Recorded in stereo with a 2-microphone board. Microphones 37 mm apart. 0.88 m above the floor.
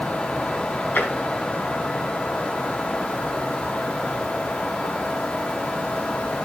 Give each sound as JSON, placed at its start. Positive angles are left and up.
{"t": 0.9, "sound": "tapping", "side_deg": 45, "distance_m": 4.0}